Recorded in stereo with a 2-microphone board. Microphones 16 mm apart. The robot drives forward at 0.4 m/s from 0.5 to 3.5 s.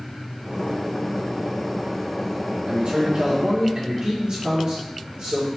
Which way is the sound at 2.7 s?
80° right.